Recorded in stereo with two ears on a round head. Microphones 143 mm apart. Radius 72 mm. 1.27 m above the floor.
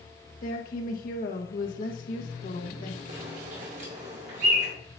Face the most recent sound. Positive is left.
turn(degrees=-45)  # may be behind; listen again after turning